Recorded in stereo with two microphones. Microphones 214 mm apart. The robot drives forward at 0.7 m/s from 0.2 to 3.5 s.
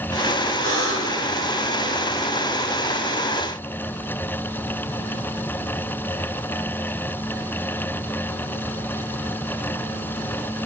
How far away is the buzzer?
About 6.5 m.